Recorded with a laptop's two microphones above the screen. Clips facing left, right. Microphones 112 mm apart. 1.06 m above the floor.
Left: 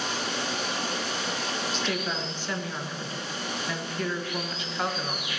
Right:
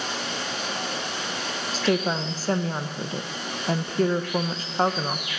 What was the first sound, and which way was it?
Running water, 60° right (ahead or behind).